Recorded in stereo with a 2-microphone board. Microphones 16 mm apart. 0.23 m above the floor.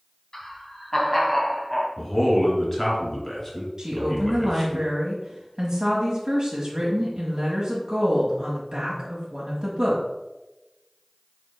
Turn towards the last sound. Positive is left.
turn(degrees=-35)  # may be behind; listen again after turning